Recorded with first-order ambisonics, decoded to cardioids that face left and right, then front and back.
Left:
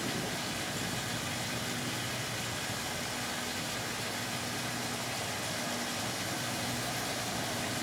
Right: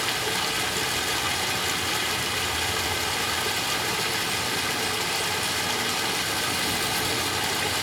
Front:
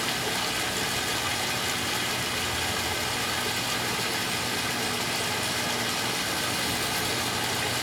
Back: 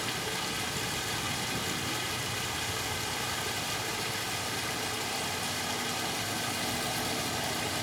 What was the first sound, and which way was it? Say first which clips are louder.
Running water: right 10 dB, front 5 dB; 65° right.